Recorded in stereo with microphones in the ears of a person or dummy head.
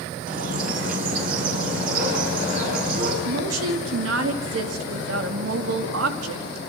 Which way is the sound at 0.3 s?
50° right (ahead or behind).